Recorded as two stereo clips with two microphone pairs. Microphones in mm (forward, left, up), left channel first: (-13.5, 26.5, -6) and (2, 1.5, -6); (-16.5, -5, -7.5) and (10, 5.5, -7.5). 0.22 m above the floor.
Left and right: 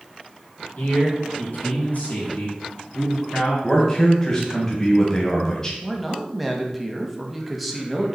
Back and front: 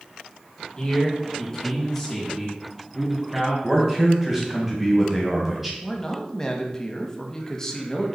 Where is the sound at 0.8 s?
140° left, 3 m; by 3.5 s 105° left, 3 m.